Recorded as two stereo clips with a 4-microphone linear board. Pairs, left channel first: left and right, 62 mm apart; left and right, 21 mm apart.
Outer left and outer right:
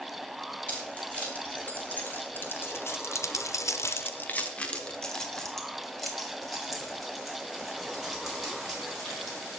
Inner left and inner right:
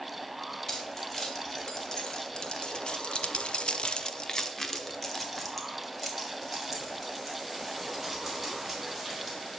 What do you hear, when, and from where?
0.7 s keys jangling: 20° left (ahead or behind), 3 m; by 9.4 s 5° right (ahead or behind), 5.5 m